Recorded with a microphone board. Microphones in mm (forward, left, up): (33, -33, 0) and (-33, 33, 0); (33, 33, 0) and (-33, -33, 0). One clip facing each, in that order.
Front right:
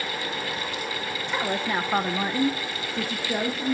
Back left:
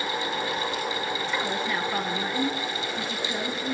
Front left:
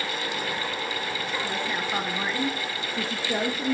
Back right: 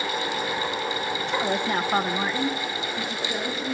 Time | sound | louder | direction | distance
1.3 | a woman speaking | front right 4 dB, back right 7 dB | 120° right | 1.3 m